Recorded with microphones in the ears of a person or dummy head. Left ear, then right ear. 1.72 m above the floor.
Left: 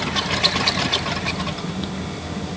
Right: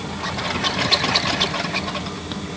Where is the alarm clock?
No alarm clock in this recording.